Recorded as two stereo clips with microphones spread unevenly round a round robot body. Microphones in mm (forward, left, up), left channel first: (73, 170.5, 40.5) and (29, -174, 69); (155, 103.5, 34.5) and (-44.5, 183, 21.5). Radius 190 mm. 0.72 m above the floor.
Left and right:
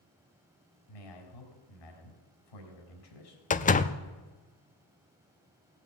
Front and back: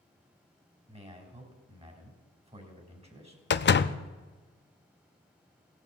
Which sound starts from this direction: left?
A man speaking, at 0.9 s.